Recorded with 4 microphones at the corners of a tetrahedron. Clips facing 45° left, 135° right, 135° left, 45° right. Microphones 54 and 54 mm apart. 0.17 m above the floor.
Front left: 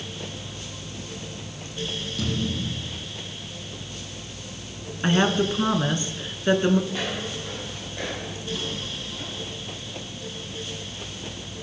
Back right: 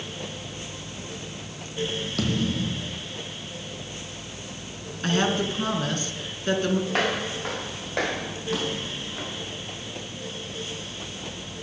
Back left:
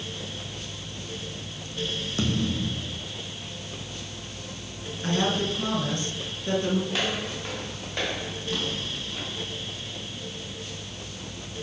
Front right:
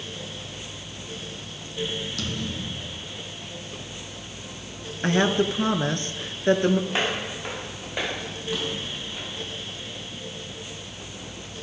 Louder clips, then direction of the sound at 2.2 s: Back right 2 dB, back left 4 dB; 160° right.